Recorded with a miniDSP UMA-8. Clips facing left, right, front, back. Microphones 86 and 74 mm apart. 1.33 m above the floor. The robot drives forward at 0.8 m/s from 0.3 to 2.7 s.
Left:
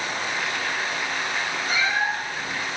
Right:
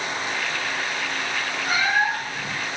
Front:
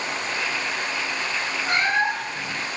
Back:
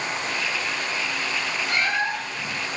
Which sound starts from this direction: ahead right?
A cat meowing, at 1.7 s.